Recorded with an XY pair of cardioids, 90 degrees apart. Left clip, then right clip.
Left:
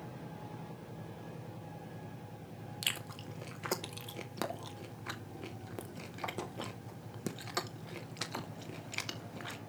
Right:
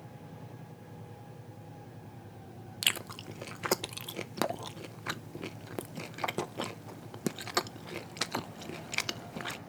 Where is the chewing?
50° right, 0.5 m.